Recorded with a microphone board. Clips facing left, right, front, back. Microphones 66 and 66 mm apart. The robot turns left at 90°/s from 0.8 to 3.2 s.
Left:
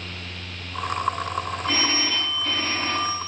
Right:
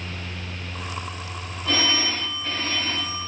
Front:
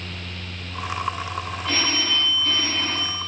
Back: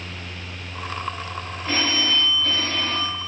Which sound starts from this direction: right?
A phone ringing, at 1.6 s.